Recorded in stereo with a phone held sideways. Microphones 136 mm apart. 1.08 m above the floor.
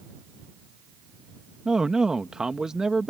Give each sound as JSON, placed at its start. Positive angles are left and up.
{"t": 1.6, "sound": "a man speaking", "side_deg": -5}